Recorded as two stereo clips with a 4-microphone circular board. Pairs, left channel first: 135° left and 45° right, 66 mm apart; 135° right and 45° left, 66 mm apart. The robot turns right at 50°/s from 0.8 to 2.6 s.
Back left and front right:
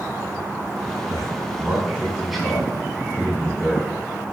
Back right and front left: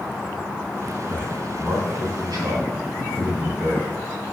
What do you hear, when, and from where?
1.1 s a man speaking: 15° right, 3 m; by 3.9 s 60° left, 3 m